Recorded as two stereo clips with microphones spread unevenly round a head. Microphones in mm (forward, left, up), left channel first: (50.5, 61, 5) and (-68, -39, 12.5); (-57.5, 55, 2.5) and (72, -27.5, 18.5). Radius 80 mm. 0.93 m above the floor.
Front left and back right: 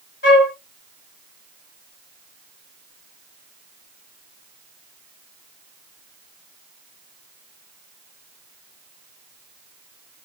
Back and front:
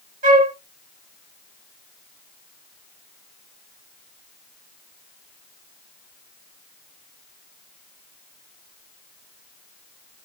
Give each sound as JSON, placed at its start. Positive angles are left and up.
{"t": 0.2, "sound": "a flute", "azimuth_deg": 5, "distance_m": 1.3}